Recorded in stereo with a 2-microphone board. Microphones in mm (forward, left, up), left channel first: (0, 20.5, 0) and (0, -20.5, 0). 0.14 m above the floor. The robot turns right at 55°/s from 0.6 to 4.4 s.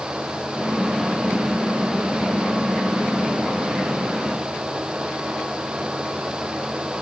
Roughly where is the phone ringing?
I don't hear a phone ringing.